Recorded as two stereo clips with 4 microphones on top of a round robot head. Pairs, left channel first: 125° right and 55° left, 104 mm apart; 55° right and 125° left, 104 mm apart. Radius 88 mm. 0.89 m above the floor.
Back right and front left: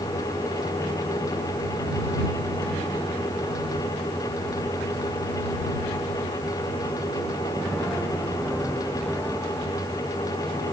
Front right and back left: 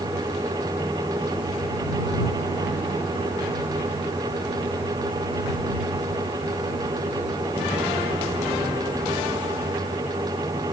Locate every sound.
Only background noise.